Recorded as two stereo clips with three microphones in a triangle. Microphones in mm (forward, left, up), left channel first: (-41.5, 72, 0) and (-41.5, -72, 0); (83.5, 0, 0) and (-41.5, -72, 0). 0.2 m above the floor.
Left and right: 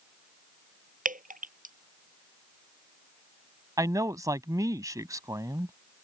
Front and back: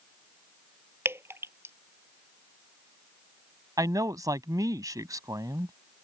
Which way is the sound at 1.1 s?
80° right.